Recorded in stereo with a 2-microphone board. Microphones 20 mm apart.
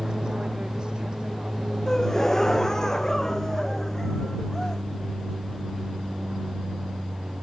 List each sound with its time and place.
0.0 s an aircraft: 40° right (ahead or behind); by 7.4 s 75° right (ahead or behind)
1.9 s a gasp: 30° left (ahead or behind)